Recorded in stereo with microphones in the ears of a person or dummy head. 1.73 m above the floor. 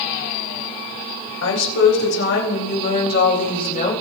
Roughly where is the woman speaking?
Left.